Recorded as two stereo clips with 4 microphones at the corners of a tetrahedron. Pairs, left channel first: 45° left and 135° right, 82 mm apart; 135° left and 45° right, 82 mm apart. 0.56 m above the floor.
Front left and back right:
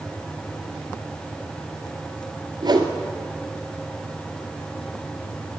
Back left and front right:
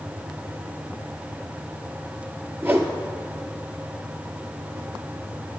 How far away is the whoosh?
About 1.8 m.